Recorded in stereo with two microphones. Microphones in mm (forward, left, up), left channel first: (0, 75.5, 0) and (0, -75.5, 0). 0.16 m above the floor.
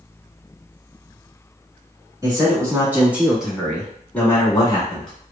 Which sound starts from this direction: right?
A man speaking, at 2.2 s.